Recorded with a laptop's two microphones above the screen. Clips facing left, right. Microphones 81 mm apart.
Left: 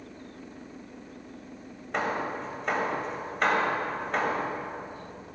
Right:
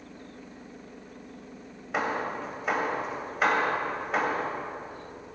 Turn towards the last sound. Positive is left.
turn(degrees=-5)  # may be behind; listen again after turning